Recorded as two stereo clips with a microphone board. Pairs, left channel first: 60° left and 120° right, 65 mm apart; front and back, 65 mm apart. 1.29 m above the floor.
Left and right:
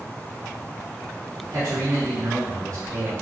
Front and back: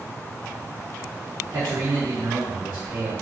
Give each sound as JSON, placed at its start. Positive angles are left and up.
{"t": 1.5, "sound": "a man speaking", "azimuth_deg": -150, "distance_m": 1.2}